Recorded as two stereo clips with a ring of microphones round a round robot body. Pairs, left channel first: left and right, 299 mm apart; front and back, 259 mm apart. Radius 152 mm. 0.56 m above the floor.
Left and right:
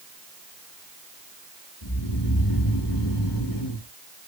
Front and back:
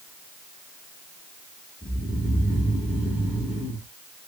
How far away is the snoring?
About 2.5 m.